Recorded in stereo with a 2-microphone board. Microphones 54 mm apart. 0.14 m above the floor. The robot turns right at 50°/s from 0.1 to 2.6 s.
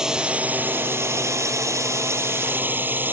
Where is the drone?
170° right; by 3.1 s 45° right.